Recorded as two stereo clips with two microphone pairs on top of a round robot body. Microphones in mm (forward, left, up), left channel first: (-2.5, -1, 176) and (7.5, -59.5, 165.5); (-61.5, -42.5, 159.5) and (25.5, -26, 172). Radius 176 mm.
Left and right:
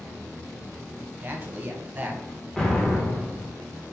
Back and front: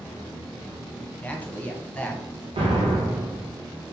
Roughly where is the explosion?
Ahead.